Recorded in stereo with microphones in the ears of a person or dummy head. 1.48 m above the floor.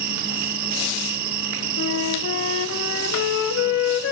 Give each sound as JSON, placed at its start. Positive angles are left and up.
{"t": 0.0, "sound": "an insect", "side_deg": -55, "distance_m": 1.2}
{"t": 1.8, "sound": "a flute", "side_deg": 70, "distance_m": 1.4}